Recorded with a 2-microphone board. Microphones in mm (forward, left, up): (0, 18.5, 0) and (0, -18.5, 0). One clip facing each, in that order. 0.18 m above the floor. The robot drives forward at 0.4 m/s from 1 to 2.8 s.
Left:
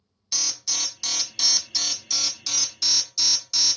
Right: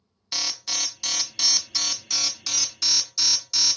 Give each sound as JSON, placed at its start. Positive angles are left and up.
{"t": 0.3, "sound": "an alarm", "side_deg": -30, "distance_m": 0.8}